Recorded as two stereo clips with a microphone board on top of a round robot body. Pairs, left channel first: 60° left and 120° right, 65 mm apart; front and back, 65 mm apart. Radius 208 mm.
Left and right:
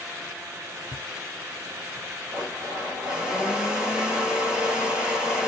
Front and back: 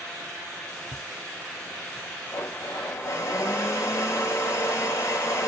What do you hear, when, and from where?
0.9 s footsteps: 160° right, 1.3 m; by 2.1 s 85° right, 2.0 m
2.3 s a blender: 45° right, 2.5 m